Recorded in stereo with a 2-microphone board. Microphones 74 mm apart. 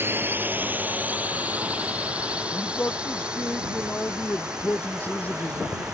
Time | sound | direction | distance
0.0 | a drone | 30° right (ahead or behind) | ?
2.5 | a man speaking | 20° left (ahead or behind) | ?